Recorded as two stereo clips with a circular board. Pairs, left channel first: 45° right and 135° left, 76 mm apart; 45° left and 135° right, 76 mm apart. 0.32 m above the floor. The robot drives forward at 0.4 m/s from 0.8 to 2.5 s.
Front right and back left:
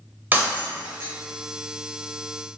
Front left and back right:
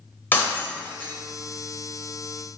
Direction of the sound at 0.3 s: 90° left.